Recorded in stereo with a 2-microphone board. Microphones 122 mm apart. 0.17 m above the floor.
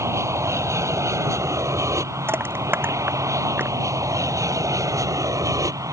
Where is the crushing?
15° right (ahead or behind).